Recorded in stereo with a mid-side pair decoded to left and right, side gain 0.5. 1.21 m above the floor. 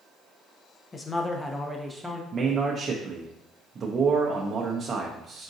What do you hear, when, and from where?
0.9 s a man speaking: 35° left, 0.8 m; by 2.2 s 5° right, 1.0 m
2.3 s a man speaking: 40° right, 0.7 m